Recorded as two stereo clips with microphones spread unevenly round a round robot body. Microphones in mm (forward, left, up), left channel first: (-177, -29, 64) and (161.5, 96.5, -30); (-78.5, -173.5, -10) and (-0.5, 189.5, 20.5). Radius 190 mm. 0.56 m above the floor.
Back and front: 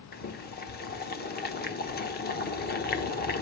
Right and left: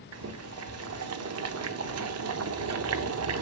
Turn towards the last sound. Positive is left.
turn(degrees=130)